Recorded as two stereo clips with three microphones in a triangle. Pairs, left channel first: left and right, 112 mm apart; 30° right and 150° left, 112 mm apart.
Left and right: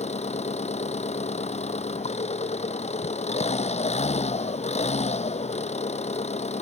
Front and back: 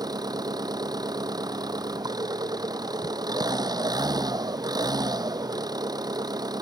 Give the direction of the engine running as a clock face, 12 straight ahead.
9 o'clock.